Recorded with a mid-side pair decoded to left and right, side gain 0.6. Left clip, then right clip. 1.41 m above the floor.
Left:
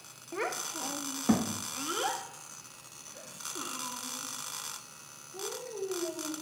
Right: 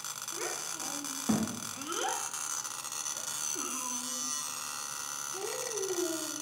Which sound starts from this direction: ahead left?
A child speaking, at 0.3 s.